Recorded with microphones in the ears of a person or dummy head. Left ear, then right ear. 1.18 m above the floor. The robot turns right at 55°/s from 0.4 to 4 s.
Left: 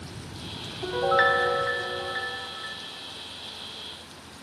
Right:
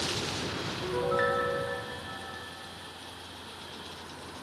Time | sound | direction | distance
0.8 | a piano | 10° left | 0.6 m